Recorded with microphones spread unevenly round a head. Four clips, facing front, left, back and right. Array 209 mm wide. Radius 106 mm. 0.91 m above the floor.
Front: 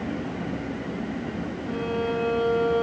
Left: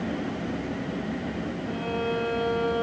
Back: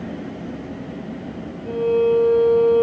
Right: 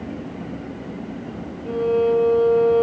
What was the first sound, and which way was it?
A violin, 135° right.